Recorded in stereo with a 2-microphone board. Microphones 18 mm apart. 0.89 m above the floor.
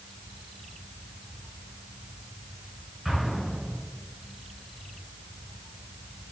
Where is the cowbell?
No cowbell in this recording.